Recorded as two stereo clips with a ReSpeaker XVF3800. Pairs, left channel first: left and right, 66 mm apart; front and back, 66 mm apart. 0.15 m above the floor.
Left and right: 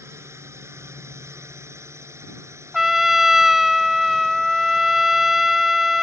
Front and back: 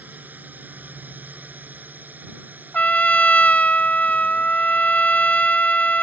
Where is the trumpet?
10° right.